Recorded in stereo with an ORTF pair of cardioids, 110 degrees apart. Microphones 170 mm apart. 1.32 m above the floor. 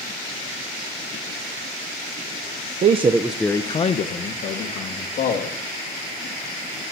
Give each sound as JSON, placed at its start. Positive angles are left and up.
{"t": 2.8, "sound": "a man speaking", "azimuth_deg": -45, "distance_m": 0.8}